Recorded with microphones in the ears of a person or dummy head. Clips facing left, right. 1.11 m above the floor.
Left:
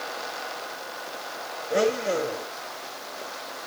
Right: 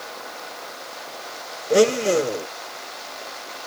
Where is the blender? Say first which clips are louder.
Right 7 dB; 45° right (ahead or behind), 0.6 m.